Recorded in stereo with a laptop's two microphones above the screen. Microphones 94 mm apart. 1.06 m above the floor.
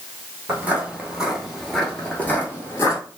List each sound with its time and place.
0.5 s footsteps: 20° right (ahead or behind), 1.2 m; by 3.0 s 30° left (ahead or behind), 1.2 m